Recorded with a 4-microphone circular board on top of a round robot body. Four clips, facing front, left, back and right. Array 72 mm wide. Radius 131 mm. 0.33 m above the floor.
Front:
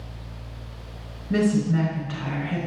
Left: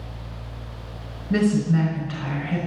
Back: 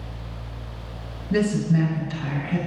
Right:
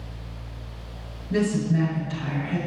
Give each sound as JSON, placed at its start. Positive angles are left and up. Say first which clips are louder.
{"t": 1.3, "sound": "a woman speaking", "louder": "left 3 dB, even", "azimuth_deg": 45, "distance_m": 4.5}